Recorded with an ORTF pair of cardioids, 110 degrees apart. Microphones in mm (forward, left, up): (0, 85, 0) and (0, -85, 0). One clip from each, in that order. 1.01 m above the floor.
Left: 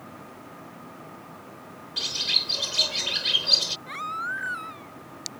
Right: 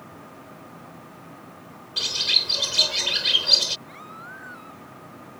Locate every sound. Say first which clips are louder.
2.0 s a bird: right 3 dB; 20° right
3.9 s a baby crying: left 10 dB; 60° left